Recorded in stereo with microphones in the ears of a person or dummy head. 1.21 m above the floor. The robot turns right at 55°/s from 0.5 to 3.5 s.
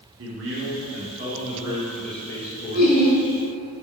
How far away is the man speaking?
About 0.9 m.